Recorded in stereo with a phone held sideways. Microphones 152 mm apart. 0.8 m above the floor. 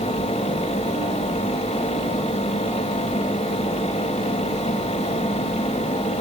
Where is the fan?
50° left (ahead or behind), 2.5 m.